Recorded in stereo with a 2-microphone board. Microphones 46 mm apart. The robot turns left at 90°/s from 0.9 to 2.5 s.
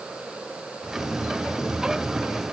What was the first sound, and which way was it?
Only background noise.